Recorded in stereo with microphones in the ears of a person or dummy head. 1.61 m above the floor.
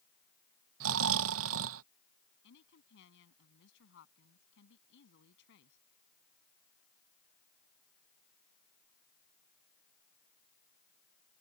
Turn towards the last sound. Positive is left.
turn(degrees=70)  # may be behind; listen again after turning